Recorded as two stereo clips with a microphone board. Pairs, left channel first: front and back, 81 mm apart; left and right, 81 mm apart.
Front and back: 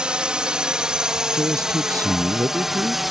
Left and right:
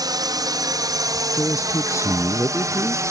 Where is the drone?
100° right; by 3.1 s 90° right.